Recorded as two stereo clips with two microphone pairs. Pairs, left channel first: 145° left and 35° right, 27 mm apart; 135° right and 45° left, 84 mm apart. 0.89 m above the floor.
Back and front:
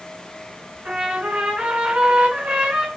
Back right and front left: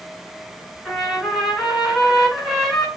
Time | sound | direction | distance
0.8 | a trumpet | 45° right | 5 m